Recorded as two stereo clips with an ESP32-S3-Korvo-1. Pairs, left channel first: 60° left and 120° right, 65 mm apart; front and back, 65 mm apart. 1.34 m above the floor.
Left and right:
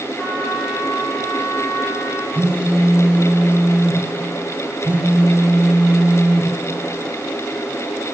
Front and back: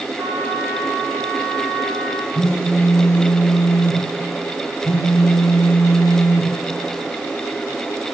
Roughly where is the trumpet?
Behind left.